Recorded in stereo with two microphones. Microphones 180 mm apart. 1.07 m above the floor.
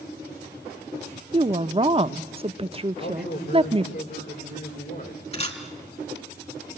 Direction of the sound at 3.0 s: 55° left (ahead or behind).